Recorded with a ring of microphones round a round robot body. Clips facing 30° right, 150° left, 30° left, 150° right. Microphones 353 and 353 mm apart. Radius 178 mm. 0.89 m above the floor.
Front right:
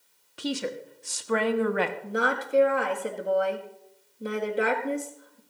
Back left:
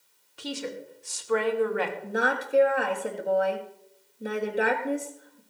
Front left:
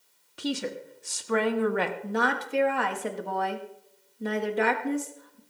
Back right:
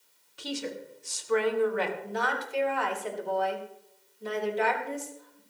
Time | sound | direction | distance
0.4 | a woman speaking | 5° right | 1.3 m
2.0 | a woman speaking | 55° left | 1.5 m